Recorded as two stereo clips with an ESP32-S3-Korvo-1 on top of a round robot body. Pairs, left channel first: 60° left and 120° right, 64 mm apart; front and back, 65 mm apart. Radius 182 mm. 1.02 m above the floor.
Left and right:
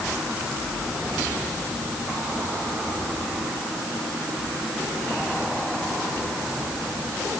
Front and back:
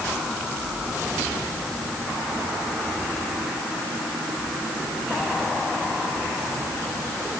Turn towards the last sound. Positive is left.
No sound to turn to.